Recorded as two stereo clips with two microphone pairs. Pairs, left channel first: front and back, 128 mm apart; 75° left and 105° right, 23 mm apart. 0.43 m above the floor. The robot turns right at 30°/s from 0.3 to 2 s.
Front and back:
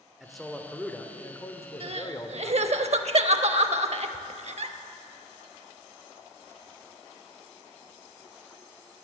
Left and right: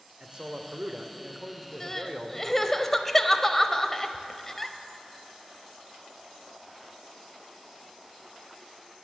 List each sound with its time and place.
0.2 s a man speaking: 90° right, 0.9 m; by 2.8 s 40° right, 0.9 m
1.8 s crying: 145° left, 0.5 m; by 4.8 s 150° left, 0.5 m